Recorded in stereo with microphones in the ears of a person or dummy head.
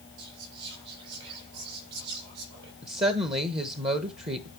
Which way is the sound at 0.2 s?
65° right (ahead or behind).